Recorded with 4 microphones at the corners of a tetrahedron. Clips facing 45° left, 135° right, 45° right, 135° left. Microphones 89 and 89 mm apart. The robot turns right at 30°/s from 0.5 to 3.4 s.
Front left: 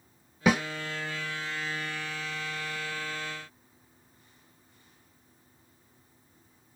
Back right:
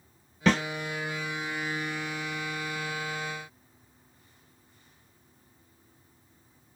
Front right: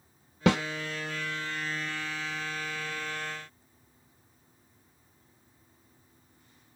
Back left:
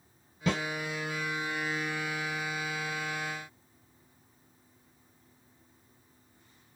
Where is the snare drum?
35° right, 0.7 m; by 0.6 s 30° right, 0.7 m.